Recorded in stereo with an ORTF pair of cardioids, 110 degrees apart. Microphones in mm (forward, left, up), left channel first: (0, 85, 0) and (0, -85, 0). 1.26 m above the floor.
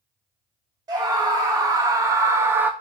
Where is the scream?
25° right, 1.5 m; by 2.7 s 15° right, 0.6 m.